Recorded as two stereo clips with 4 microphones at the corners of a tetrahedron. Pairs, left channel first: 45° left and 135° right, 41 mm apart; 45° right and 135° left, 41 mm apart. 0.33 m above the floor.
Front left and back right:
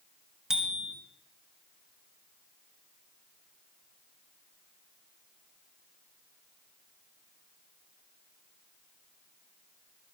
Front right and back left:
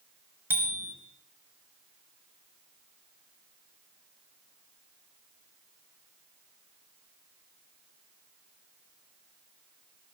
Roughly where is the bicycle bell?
Behind left.